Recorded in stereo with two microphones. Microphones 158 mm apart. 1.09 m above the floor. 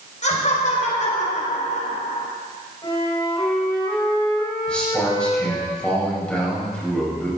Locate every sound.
0.2 s laughter: 50° left (ahead or behind), 4.5 m
2.8 s a flute: 30° left (ahead or behind), 4 m
4.7 s a man speaking: 5° left (ahead or behind), 6.5 m